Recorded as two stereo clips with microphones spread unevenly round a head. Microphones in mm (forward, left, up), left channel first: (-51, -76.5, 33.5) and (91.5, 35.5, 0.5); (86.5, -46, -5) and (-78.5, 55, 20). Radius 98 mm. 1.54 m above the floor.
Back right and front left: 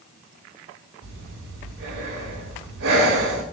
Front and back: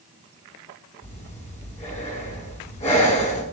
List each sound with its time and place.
1.0 s breathing: 25° left, 8.5 m